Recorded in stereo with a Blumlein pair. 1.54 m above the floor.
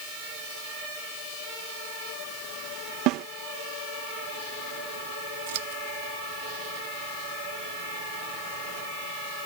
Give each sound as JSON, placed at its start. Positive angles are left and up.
{"t": 3.1, "sound": "a snare drum", "azimuth_deg": -40}
{"t": 5.5, "sound": "scissors", "azimuth_deg": -55}